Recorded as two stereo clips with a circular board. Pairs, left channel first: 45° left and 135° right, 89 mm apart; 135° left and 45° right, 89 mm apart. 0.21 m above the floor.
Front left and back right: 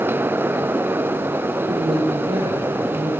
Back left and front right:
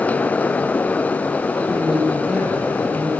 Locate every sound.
1.7 s a woman speaking: 125° right, 8 m